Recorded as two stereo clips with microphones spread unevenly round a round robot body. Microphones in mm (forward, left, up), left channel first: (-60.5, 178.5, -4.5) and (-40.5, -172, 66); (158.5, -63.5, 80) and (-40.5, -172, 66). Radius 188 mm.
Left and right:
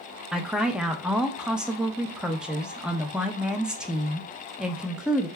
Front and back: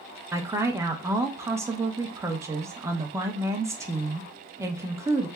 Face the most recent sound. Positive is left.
turn(degrees=160)